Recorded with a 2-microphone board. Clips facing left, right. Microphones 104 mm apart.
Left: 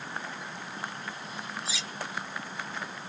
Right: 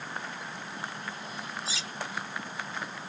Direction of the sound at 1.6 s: 70° left (ahead or behind).